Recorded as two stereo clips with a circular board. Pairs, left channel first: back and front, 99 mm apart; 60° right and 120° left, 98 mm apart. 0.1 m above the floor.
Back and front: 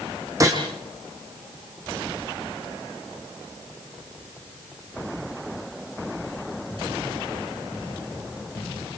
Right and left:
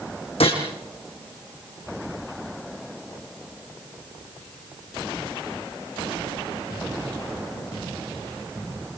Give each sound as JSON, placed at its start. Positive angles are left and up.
{"t": 0.4, "sound": "a gunshot", "azimuth_deg": -55, "distance_m": 4.0}